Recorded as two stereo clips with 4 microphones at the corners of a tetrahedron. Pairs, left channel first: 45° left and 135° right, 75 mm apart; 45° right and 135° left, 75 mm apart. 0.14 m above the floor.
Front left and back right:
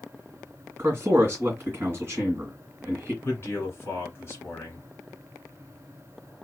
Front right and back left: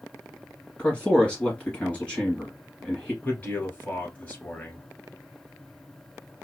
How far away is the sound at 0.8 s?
About 2.0 m.